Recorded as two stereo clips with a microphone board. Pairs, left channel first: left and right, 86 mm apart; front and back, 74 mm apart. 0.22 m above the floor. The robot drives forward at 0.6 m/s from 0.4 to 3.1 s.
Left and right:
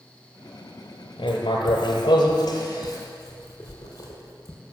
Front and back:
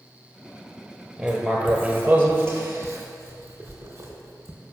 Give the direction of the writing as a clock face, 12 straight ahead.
9 o'clock.